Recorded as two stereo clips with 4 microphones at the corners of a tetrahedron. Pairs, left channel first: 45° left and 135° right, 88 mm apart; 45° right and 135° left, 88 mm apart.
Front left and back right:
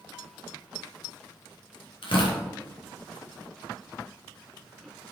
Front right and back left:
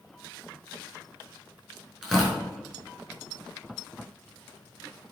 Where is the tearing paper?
50° left, 3.5 m.